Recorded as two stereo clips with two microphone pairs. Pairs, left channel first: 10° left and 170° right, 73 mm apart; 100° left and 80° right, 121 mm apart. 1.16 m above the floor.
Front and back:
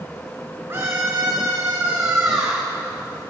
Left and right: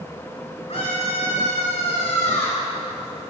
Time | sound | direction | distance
0.7 | a scream | 135° left | 3 m